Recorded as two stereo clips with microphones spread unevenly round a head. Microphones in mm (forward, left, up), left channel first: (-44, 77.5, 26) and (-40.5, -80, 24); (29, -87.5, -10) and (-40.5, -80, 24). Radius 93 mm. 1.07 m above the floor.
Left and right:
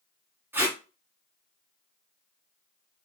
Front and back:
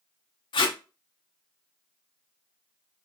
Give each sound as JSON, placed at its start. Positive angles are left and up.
{"t": 0.5, "sound": "tape being pulled", "azimuth_deg": -10, "distance_m": 0.6}